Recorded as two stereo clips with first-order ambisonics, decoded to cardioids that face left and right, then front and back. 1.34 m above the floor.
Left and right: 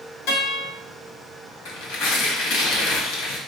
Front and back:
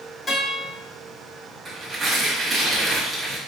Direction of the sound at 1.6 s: 105° left.